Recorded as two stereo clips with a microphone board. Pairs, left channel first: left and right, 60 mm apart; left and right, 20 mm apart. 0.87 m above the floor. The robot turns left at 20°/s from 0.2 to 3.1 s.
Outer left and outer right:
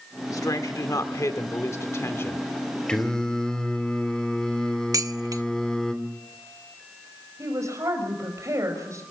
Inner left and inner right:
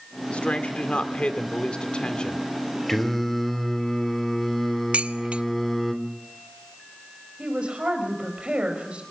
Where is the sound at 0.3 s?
85° left, 2 m; by 2.5 s 40° left, 2 m.